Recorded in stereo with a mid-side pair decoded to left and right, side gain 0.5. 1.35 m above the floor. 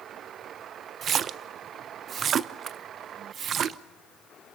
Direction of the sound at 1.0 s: 50° right.